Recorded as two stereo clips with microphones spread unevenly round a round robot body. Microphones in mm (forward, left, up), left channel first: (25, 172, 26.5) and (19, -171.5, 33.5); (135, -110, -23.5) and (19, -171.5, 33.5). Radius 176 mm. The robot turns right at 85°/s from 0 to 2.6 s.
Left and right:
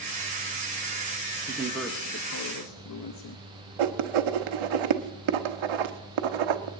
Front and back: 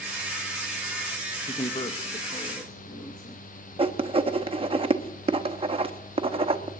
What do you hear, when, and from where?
1.5 s a man speaking: 30° right, 1.0 m; by 3.4 s 65° left, 1.0 m
3.8 s writing: 95° right, 1.0 m